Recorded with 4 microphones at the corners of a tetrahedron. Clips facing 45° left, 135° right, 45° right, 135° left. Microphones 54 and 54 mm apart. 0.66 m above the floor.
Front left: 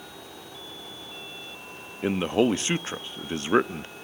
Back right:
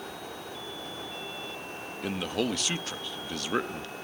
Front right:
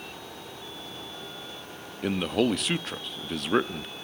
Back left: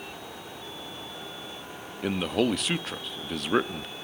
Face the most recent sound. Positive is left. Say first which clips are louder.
# front left 8 dB, front right 1 dB
turn(degrees=50)